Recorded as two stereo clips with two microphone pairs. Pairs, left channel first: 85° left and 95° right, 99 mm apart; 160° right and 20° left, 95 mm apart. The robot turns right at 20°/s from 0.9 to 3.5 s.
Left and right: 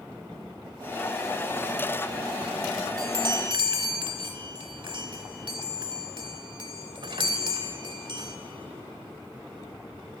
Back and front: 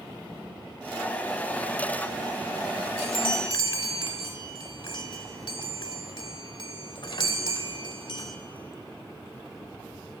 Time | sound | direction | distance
3.0 | a chime | 140° right | 0.8 m